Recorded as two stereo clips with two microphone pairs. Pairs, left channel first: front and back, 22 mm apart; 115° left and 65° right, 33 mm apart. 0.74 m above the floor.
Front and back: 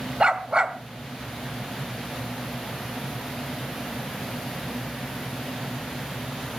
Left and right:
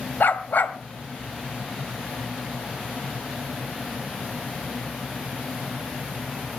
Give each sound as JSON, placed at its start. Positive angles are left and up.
{"t": 0.2, "sound": "a dog barking", "azimuth_deg": 120, "distance_m": 1.8}